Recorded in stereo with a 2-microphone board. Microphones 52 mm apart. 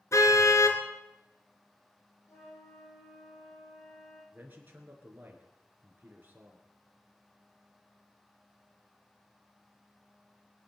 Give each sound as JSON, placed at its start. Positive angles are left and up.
{"t": 0.1, "sound": "a car horn", "side_deg": 75, "distance_m": 2.0}
{"t": 2.3, "sound": "a flute", "side_deg": 85, "distance_m": 5.5}
{"t": 4.3, "sound": "a man speaking", "side_deg": -35, "distance_m": 4.0}